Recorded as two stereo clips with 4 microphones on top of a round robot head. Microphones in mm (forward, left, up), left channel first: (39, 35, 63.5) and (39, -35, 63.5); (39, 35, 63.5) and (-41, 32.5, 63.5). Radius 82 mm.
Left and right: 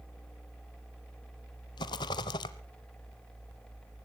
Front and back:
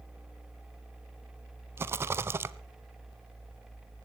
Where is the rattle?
125° left, 0.7 m.